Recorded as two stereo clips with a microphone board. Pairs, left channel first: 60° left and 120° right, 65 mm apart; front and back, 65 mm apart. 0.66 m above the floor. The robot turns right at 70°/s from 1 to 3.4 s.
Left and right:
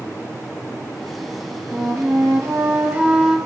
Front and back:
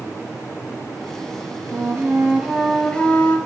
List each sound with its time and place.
1.7 s a flute: 160° right, 0.5 m; by 3.4 s 40° right, 0.5 m